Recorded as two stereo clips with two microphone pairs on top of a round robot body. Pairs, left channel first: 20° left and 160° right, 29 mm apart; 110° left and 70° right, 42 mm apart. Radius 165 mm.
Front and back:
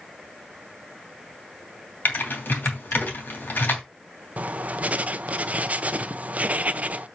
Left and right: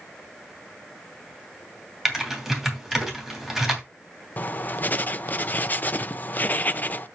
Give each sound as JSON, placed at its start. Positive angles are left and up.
{"t": 2.0, "sound": "typing on a keyboard", "azimuth_deg": 15, "distance_m": 3.0}
{"t": 4.4, "sound": "writing", "azimuth_deg": 160, "distance_m": 0.8}